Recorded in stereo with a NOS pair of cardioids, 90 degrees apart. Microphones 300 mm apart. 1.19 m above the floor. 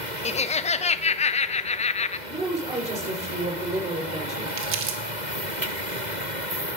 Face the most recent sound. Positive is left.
turn(degrees=-50)